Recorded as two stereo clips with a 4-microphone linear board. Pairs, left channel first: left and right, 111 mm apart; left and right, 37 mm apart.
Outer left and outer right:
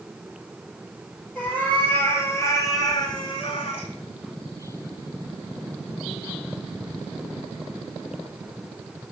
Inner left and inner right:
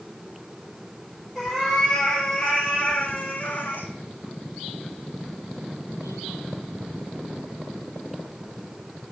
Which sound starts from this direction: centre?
A cat meowing, at 1.4 s.